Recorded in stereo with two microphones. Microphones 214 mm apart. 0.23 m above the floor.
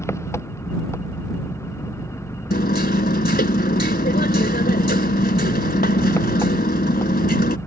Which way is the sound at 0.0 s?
10° left (ahead or behind).